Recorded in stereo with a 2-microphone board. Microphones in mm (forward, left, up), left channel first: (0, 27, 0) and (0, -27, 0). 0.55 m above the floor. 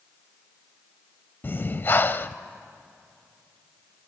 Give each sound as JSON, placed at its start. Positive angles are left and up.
{"t": 1.4, "sound": "breathing", "side_deg": 35, "distance_m": 0.5}